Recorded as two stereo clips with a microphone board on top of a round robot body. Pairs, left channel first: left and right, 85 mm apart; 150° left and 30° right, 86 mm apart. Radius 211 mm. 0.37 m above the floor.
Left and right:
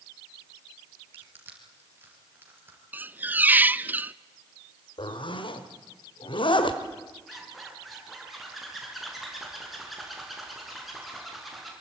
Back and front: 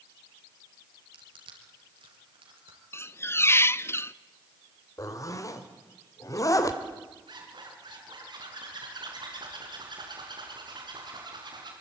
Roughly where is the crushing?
Ahead right.